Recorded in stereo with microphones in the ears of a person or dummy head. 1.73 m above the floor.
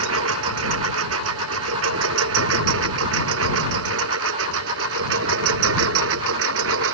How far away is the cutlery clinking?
I don't hear cutlery clinking.